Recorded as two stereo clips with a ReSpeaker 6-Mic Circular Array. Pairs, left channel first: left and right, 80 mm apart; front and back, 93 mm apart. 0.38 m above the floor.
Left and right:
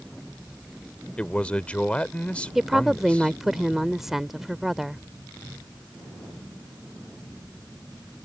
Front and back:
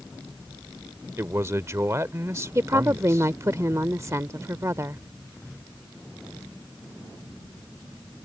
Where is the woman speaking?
170° right.